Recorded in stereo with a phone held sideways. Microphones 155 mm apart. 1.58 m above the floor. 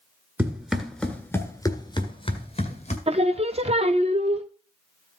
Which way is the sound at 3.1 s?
40° right (ahead or behind).